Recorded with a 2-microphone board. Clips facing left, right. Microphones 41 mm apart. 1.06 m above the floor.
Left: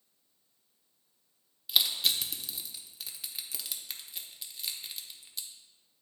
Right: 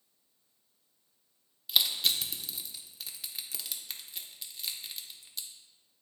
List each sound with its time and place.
1.7 s crushing: 5° left (ahead or behind), 0.7 m